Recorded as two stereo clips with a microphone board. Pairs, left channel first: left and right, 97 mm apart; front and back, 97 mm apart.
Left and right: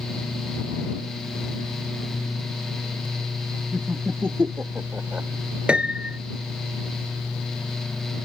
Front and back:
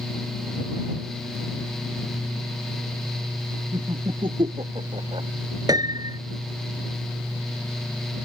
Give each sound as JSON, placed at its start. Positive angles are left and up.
{"t": 3.7, "sound": "laughter", "azimuth_deg": -155}
{"t": 5.7, "sound": "a piano", "azimuth_deg": -165}